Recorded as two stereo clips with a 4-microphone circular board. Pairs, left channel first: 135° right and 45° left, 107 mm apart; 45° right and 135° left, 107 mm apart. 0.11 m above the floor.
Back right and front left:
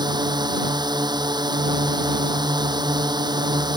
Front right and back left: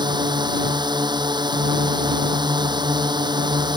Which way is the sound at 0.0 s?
90° left.